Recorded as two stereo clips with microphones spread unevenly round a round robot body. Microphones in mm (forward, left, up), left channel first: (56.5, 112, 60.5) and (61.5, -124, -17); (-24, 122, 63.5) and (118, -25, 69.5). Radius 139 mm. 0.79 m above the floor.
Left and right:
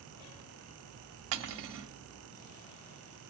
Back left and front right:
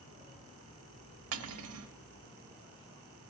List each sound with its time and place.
1.3 s cutlery clinking: 55° right, 0.9 m